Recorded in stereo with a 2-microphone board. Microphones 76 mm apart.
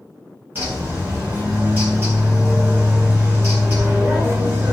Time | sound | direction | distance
0.6 | a bird | 30° right (ahead or behind) | 1.3 m